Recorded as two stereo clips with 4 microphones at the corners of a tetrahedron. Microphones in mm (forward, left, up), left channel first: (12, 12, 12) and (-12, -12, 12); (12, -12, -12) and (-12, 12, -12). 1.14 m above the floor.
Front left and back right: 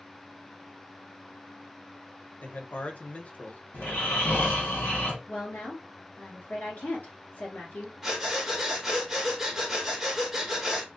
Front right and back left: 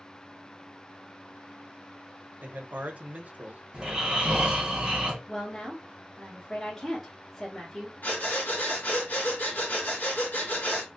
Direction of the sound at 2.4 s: 95° left.